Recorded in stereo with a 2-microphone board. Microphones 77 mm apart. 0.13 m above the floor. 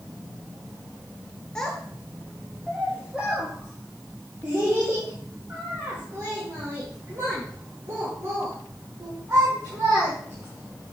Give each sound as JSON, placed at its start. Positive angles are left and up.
{"t": 1.6, "sound": "a child speaking", "side_deg": 10, "distance_m": 1.3}